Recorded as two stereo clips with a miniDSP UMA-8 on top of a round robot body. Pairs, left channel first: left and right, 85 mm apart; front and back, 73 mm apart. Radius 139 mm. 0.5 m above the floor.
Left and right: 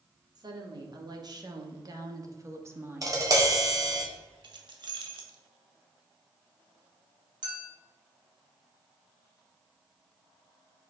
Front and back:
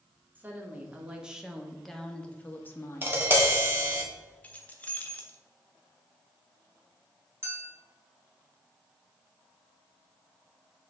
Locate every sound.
0.3 s a woman speaking: 120° right, 1.6 m; by 3.2 s 30° right, 1.2 m
3.0 s tapping: 125° right, 1.8 m
4.4 s keys jangling: 70° right, 1.0 m
7.4 s a clink: 120° right, 2 m